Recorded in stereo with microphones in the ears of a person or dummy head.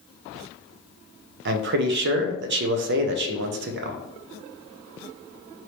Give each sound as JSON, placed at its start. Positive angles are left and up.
{"t": 1.4, "sound": "a man speaking", "side_deg": -55, "distance_m": 0.5}